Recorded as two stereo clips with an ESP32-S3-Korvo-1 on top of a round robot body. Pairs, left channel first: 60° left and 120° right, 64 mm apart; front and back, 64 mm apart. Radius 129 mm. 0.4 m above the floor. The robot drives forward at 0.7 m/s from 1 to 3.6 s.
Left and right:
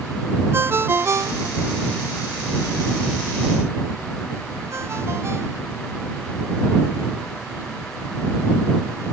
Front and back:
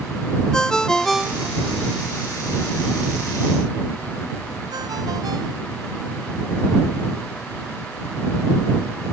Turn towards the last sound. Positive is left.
turn(degrees=-170)